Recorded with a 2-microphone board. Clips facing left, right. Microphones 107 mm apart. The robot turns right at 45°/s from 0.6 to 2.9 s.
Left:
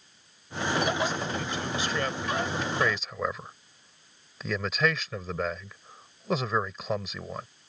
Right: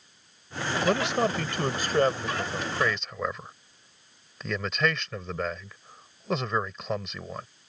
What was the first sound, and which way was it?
A man speaking, 90° right.